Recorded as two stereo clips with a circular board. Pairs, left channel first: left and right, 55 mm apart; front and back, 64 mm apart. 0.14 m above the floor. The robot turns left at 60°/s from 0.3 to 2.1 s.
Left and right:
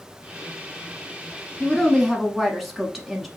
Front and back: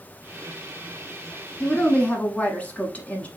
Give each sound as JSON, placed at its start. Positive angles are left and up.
{"t": 1.6, "sound": "a woman speaking", "azimuth_deg": 30, "distance_m": 1.0}